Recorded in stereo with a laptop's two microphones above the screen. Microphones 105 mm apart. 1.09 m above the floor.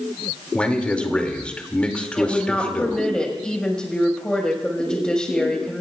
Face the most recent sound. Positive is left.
turn(degrees=10)  # may be behind; listen again after turning